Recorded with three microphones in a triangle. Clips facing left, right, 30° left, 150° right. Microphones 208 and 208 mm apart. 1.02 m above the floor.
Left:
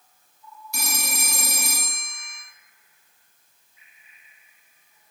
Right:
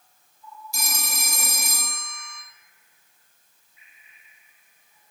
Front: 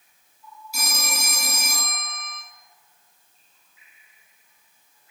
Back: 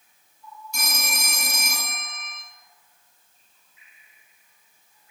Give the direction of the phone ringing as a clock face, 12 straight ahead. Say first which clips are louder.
Left 4 dB, front 1 dB; 8 o'clock.